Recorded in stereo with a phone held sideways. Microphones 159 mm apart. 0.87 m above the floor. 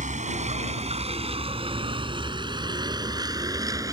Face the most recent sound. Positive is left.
turn(degrees=-20)  # may be behind; listen again after turning